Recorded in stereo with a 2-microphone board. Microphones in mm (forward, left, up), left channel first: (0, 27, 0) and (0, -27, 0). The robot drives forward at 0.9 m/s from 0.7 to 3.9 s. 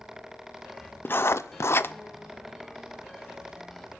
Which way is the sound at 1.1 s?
40° left (ahead or behind).